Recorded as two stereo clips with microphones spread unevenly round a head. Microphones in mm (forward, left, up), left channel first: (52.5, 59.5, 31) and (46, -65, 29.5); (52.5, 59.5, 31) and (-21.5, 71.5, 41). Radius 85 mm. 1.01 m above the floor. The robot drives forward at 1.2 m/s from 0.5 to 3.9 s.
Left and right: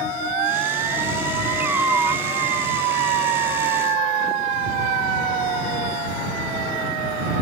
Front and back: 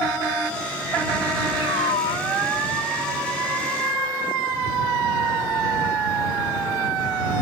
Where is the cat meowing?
15° right; by 2.3 s 20° right.